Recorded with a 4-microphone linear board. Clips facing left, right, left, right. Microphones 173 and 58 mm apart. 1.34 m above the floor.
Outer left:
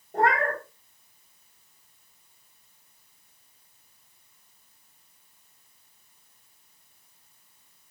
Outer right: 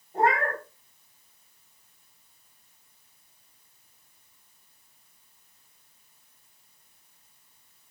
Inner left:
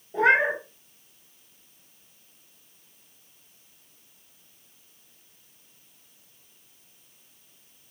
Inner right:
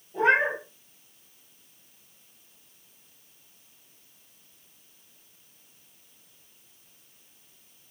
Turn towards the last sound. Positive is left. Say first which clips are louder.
# outer left 1 dB, inner left 2 dB
turn(degrees=65)  # may be behind; listen again after turning